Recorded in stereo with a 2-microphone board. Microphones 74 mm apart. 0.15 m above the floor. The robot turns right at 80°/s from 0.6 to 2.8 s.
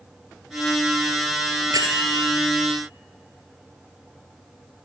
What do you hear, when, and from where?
1.7 s a bell: 110° right, 2.5 m; by 2.3 s 60° right, 2.5 m